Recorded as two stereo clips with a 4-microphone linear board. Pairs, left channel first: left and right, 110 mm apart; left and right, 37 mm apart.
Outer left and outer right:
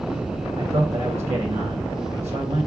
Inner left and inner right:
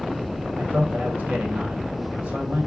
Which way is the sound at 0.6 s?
60° right (ahead or behind).